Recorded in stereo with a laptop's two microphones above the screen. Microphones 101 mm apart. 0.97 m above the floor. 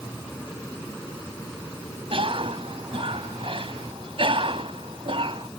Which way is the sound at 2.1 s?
60° right (ahead or behind).